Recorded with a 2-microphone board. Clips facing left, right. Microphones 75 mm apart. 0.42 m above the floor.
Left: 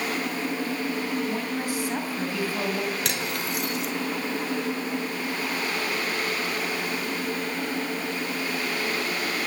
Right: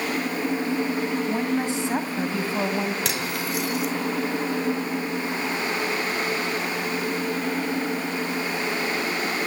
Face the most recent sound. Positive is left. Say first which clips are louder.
# right 2 dB
turn(degrees=0)  # may be behind; listen again after turning